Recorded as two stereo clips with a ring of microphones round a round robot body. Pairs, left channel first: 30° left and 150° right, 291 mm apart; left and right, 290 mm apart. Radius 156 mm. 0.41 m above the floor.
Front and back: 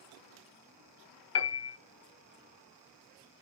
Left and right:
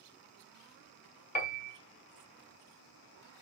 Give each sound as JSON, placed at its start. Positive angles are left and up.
{"t": 1.4, "sound": "a piano", "azimuth_deg": 45, "distance_m": 1.1}